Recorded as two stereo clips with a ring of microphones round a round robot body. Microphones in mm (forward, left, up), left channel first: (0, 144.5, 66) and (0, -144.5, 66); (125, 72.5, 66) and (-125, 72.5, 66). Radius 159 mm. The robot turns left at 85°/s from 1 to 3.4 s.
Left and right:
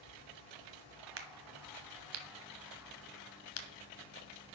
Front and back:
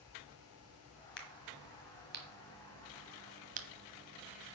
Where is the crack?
45° right, 1.2 m; by 3.7 s 125° left, 1.2 m.